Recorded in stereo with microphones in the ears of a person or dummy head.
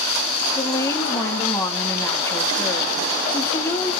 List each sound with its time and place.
0.6 s a woman speaking: 20° left (ahead or behind), 2.0 m